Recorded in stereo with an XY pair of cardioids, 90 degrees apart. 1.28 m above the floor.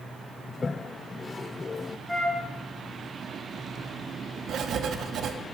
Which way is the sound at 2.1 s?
5° left.